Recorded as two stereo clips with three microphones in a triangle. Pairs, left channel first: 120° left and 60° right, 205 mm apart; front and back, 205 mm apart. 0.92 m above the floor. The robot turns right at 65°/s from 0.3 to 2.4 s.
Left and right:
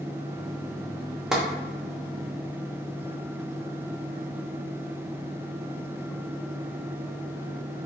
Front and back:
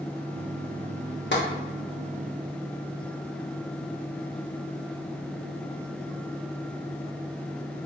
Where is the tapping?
25° left, 0.8 m; by 1.4 s 35° left, 0.8 m.